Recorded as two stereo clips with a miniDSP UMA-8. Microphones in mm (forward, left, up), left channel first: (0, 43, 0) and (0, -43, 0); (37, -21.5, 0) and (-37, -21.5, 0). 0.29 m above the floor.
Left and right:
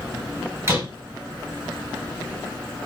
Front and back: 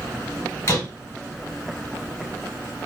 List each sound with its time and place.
0.7 s a door slam: 40° right, 1.6 m